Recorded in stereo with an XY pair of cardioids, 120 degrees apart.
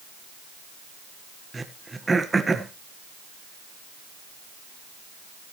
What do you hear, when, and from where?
1.5 s throat clearing: 15° right, 1.5 m